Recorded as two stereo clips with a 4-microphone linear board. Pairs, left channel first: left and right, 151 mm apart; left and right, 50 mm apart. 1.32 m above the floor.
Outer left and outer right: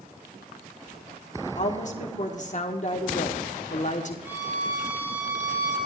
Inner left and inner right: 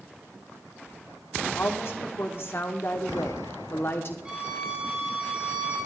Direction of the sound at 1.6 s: 55° left (ahead or behind).